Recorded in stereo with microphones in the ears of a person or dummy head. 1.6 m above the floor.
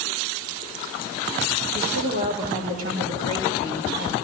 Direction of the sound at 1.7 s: 40° right (ahead or behind).